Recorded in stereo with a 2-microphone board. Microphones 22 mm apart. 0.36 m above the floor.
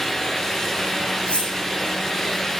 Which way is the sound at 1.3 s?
55° left (ahead or behind).